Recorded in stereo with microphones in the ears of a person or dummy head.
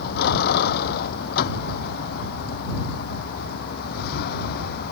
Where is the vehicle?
55° left (ahead or behind).